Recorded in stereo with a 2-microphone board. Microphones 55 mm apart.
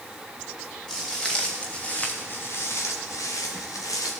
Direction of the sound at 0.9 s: 10° left (ahead or behind).